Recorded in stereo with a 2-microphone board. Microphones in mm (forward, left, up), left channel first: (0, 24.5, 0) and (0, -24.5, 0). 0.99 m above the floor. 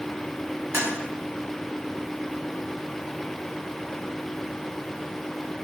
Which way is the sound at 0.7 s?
45° right (ahead or behind).